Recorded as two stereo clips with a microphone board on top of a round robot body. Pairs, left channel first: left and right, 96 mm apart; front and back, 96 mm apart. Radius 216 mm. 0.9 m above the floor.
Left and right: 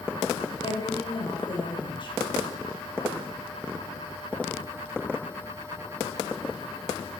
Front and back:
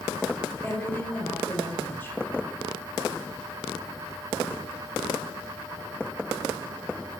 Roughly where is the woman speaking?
Ahead left.